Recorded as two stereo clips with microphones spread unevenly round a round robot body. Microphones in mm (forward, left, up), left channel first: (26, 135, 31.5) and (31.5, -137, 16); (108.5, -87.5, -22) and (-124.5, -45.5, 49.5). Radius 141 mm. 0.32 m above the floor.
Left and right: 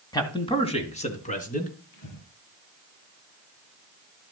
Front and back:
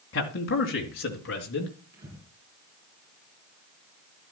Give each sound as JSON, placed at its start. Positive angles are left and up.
{"t": 0.1, "sound": "a man speaking", "azimuth_deg": 15, "distance_m": 2.5}
{"t": 1.9, "sound": "breathing", "azimuth_deg": 110, "distance_m": 7.0}